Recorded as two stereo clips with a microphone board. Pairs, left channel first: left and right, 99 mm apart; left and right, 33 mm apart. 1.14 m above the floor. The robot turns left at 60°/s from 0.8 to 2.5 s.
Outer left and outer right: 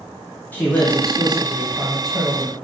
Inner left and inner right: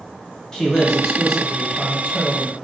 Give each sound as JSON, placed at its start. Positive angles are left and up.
{"t": 0.5, "sound": "a man speaking", "azimuth_deg": 20, "distance_m": 0.8}